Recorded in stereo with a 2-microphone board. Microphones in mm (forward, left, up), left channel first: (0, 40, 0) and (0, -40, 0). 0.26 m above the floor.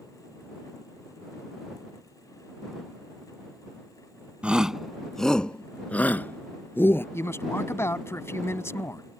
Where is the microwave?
No microwave in this recording.